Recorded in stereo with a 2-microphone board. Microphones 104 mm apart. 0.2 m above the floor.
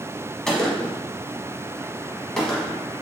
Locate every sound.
0.5 s a gunshot: 5° left (ahead or behind), 1.0 m